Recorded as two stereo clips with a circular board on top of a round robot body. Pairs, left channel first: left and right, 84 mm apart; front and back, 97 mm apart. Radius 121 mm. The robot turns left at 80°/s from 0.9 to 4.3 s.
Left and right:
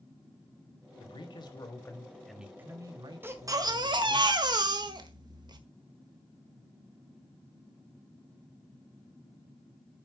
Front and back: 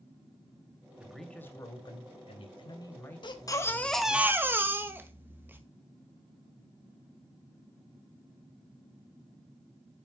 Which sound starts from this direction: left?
A man speaking, at 1.0 s.